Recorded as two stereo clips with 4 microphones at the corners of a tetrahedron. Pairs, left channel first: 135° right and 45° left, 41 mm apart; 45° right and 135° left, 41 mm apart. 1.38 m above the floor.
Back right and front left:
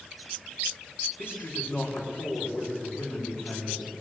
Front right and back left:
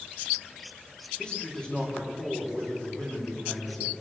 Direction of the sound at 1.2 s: 115° right.